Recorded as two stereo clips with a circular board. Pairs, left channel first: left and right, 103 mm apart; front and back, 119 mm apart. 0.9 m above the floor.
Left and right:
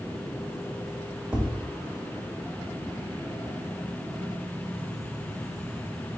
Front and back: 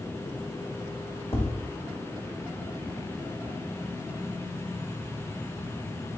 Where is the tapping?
10° right, 1.4 m.